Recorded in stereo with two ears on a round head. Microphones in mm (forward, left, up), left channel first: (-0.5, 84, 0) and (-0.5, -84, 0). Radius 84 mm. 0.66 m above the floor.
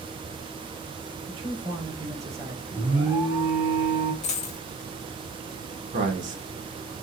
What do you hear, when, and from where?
1.3 s a man speaking: 25° right (ahead or behind), 3 m; by 2.6 s 10° right (ahead or behind), 3 m
2.7 s an alarm: 15° right (ahead or behind), 2 m
4.2 s a dropped coin: 35° left (ahead or behind), 1.2 m
5.9 s a man speaking: 40° right (ahead or behind), 2 m